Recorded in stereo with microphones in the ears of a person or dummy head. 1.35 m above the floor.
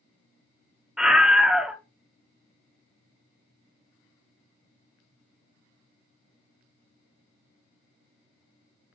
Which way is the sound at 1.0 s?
5° right (ahead or behind).